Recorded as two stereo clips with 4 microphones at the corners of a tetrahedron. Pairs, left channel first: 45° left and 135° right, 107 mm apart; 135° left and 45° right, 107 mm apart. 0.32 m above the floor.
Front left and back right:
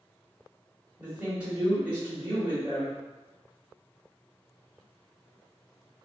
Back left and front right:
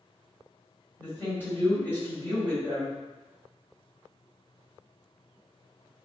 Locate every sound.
1.0 s a woman speaking: 170° left, 1.4 m